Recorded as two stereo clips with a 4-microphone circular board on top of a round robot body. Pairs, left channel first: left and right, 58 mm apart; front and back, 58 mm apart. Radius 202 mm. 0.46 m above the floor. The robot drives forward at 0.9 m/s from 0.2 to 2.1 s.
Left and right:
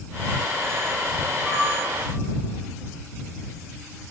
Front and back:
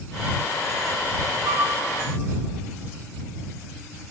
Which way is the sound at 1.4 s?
170° left.